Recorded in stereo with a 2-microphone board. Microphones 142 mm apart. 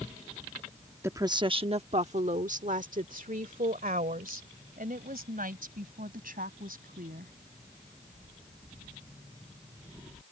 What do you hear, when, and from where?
1.0 s a woman speaking: 15° right (ahead or behind); by 7.3 s 80° right